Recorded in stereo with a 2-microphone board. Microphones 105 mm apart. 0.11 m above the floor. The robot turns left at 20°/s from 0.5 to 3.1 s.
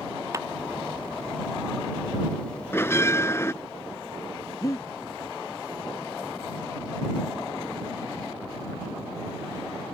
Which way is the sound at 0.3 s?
30° right (ahead or behind).